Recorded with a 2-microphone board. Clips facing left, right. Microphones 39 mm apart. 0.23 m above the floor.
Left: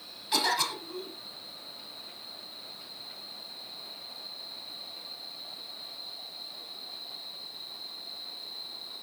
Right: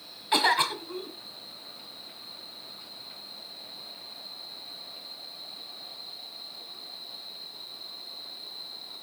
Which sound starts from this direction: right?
A cough, at 0.3 s.